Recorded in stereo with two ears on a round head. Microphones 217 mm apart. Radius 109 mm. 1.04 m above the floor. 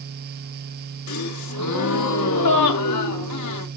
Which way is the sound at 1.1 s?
85° left.